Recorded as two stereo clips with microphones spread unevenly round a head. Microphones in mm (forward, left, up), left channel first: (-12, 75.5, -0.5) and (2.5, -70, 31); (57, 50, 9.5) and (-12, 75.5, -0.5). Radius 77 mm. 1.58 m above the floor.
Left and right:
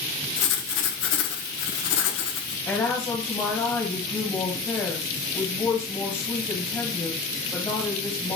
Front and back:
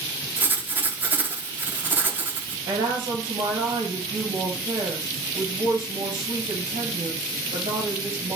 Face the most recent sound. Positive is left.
turn(degrees=170)